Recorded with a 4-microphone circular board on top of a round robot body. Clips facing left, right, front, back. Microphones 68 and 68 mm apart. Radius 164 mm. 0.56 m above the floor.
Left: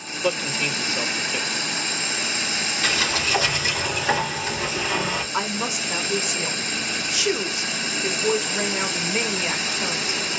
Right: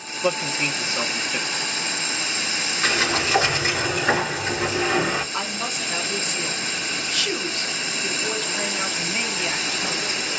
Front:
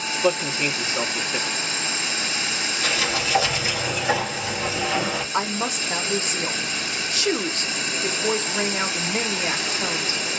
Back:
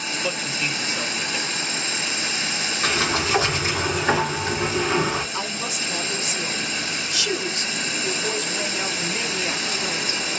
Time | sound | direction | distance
0.2 | a man speaking | 30° right | 1.2 m
2.8 | a sliding door | 140° right | 3 m
5.3 | a woman speaking | 15° left | 1.2 m